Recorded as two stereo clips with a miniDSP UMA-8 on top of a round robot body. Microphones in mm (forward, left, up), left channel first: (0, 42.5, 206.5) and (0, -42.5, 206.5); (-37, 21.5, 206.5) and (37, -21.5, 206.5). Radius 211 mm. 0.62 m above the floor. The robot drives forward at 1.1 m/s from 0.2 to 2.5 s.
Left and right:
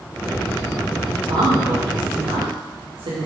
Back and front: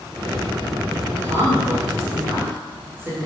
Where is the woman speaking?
60° right, 3 m; by 3.3 s 95° right, 3 m.